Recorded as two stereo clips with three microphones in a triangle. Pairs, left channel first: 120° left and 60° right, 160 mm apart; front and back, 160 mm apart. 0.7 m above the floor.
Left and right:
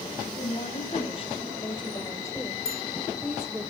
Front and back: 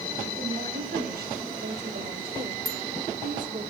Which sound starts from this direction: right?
A bicycle bell, at 2.6 s.